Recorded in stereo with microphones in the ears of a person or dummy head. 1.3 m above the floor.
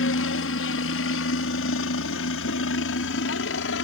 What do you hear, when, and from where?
0.0 s a helicopter: 60° left (ahead or behind); by 3.8 s 55° left (ahead or behind)